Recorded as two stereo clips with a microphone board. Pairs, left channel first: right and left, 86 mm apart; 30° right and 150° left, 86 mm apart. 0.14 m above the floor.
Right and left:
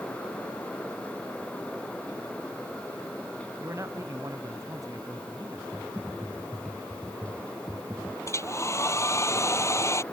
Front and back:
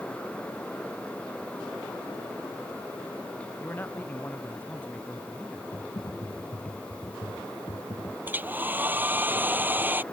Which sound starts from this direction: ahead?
Typing on a keyboard, at 5.7 s.